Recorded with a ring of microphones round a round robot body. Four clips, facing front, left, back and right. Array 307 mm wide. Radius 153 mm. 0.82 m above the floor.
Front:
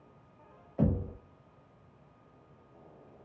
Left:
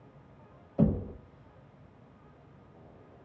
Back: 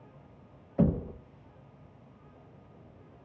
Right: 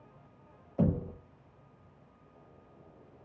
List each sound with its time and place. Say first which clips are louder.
0.8 s knocking: left 2 dB, back 3 dB; 165° left, 0.5 m